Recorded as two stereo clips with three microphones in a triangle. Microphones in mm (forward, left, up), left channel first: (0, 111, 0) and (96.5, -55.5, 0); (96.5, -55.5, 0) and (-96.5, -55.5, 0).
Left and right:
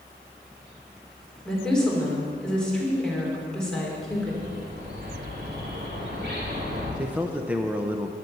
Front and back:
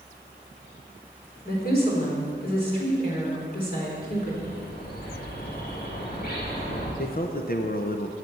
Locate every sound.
1.4 s a woman speaking: 35° left, 4 m
4.1 s a bird: 35° right, 2.5 m
7.0 s a man speaking: 20° left, 0.7 m